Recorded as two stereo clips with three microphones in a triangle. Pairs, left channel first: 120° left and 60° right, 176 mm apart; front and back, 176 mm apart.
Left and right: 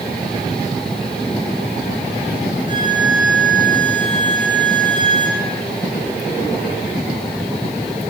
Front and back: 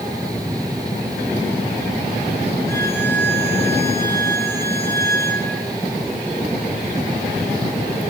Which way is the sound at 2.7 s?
160° left.